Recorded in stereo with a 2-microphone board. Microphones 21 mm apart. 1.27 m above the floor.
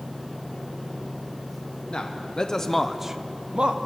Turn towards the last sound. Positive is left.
turn(degrees=-55)  # may be behind; listen again after turning